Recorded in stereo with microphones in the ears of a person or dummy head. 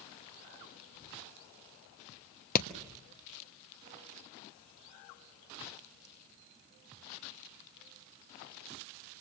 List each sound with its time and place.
2.5 s hammering: 50° left (ahead or behind), 1.2 m